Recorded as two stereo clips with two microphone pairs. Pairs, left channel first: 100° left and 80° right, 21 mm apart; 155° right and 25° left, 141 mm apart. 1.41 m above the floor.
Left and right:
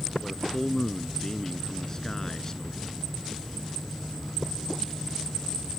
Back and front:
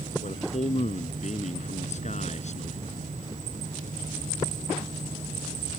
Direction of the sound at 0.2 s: 170° left.